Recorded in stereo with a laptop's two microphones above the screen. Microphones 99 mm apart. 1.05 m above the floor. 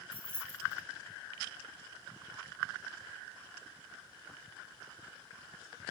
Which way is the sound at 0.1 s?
65° right (ahead or behind).